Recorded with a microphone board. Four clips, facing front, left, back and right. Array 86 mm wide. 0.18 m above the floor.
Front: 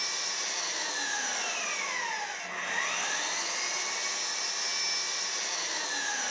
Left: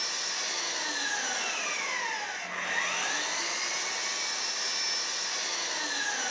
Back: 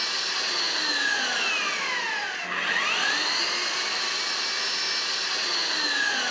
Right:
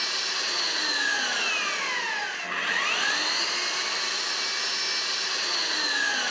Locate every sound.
0.0 s an engine running: 145° right, 0.8 m